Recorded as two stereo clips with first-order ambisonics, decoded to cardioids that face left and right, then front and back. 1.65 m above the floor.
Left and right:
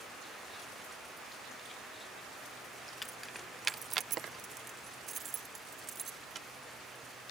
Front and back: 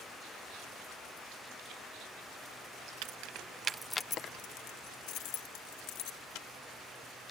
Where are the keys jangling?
175° left; by 6.5 s 20° right.